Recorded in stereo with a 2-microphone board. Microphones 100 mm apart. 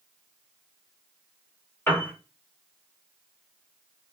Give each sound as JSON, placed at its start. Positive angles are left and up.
{"t": 1.9, "sound": "a piano", "side_deg": 20, "distance_m": 1.2}